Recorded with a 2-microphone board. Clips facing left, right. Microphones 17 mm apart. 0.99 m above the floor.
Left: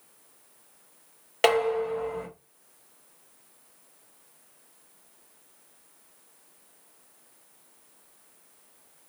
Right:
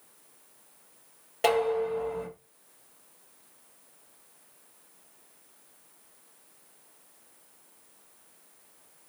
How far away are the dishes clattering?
About 2 m.